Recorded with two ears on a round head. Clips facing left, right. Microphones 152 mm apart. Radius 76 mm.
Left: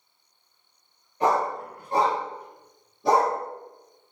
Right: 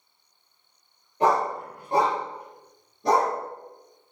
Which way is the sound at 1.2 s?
30° right (ahead or behind).